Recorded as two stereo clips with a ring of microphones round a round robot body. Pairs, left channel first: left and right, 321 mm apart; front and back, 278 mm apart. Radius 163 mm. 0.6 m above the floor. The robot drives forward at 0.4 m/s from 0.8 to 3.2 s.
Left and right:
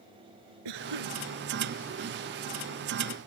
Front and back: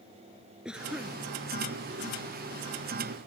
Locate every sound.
0.7 s a cough: 95° right